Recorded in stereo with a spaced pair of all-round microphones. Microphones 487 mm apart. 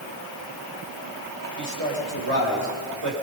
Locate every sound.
1.6 s a man speaking: 85° right, 5 m